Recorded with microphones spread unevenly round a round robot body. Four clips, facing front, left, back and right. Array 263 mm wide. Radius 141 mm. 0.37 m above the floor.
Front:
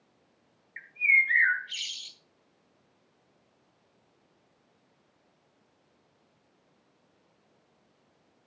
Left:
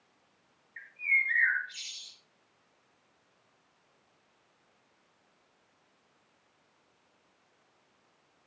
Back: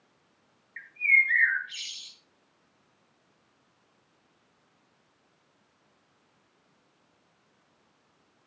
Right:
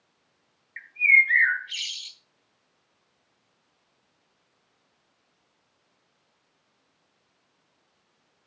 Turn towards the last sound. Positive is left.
turn(degrees=-40)